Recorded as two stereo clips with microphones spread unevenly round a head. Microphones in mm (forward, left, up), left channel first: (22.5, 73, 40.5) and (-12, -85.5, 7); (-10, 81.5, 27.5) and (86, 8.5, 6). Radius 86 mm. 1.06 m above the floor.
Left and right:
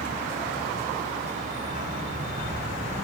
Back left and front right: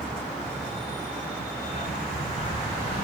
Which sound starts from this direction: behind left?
A dog barking, at 1.6 s.